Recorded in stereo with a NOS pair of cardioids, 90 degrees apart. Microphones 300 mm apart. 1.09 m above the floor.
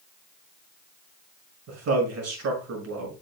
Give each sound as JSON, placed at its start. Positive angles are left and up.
{"t": 1.7, "sound": "a man speaking", "azimuth_deg": -55, "distance_m": 6.5}